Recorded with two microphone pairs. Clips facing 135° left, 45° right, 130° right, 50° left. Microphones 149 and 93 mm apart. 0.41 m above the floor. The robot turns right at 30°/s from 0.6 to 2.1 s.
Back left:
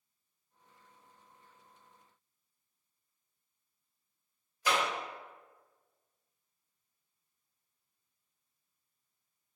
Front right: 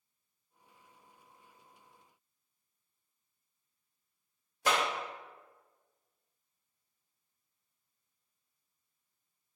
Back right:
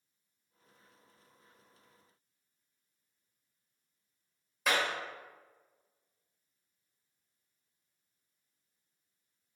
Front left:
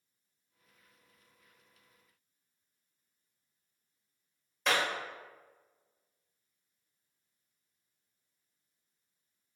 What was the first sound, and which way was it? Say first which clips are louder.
A clap: front right 1 dB, even; 50° right.